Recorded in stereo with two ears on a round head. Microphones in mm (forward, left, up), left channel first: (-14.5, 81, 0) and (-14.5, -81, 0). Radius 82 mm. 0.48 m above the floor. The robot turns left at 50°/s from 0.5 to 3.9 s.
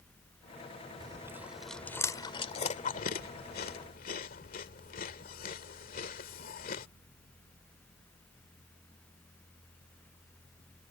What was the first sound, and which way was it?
Chewing, 25° right (ahead or behind).